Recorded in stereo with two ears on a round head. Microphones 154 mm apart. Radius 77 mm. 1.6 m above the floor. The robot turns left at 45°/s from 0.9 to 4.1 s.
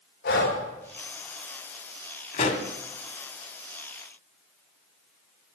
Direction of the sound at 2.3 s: 45° left (ahead or behind).